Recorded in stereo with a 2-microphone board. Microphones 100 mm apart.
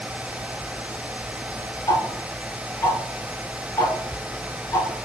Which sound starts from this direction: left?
Ticking, at 1.9 s.